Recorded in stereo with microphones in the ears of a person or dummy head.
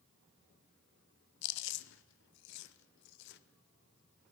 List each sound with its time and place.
1.4 s chewing: 60° left (ahead or behind), 0.7 m